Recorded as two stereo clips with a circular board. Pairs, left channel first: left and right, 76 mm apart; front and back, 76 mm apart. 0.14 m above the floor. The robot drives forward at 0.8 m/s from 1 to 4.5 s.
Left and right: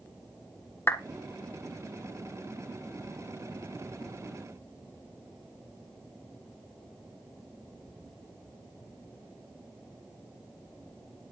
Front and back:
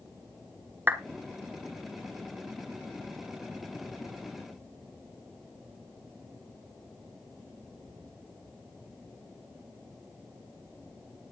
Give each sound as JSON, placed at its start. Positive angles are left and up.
{"t": 0.9, "sound": "a clap", "azimuth_deg": 130, "distance_m": 1.2}